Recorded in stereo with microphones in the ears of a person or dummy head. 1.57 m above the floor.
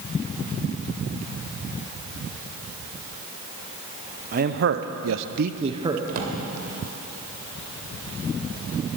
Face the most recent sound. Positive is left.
turn(degrees=-45)  # may be behind; listen again after turning